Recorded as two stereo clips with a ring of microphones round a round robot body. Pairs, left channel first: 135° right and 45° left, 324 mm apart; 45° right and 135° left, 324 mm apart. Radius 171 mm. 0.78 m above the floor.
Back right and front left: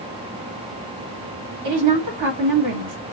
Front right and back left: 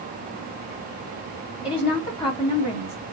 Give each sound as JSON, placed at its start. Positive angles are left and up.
{"t": 1.6, "sound": "a woman speaking", "azimuth_deg": 30, "distance_m": 2.0}